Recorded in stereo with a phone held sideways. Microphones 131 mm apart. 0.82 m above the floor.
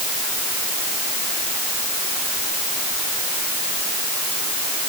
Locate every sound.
Only background noise.